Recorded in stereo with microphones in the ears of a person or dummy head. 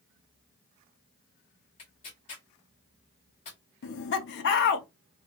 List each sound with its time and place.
1.8 s tearing paper: 35° left (ahead or behind), 1.3 m
3.8 s laughter: 60° left (ahead or behind), 0.7 m